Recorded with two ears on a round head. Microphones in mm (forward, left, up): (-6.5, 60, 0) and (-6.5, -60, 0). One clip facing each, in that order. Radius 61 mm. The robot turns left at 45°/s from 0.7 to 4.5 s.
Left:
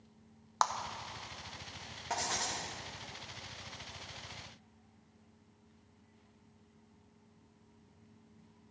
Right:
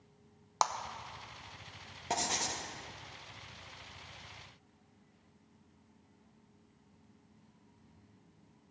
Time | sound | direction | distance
0.6 | a clap | 15° right (ahead or behind) | 0.6 m
2.1 | writing | 30° right (ahead or behind) | 1.0 m